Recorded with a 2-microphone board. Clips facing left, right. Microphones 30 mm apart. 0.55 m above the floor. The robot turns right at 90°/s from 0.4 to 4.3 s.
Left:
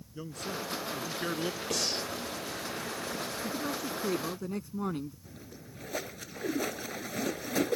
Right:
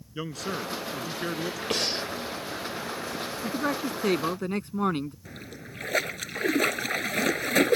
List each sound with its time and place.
0.1 s a man speaking: 85° right; by 1.6 s 25° left
1.7 s breathing: 50° right; by 2.0 s 20° right
3.4 s a man speaking: 135° right; by 5.2 s 55° right
5.2 s a splash: 80° right